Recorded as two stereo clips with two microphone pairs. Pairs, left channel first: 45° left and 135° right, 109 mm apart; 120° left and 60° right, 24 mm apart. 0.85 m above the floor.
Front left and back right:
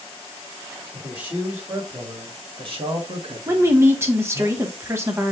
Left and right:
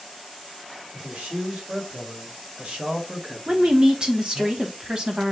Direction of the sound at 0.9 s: 55° right.